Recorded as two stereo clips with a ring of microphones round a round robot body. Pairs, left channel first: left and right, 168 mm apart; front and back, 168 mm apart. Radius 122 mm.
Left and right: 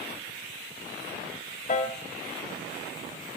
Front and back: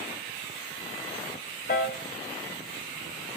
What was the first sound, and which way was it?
A piano, 40° left.